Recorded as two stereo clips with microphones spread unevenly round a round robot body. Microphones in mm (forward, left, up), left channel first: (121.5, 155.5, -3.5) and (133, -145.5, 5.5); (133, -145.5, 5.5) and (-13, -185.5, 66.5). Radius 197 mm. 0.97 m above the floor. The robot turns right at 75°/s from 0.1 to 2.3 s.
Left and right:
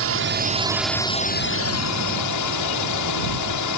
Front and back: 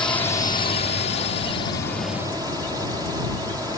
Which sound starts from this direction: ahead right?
A drone, at 0.0 s.